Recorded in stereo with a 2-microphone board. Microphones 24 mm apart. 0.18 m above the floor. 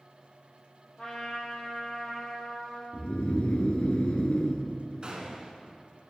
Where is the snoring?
60° left (ahead or behind), 0.8 m.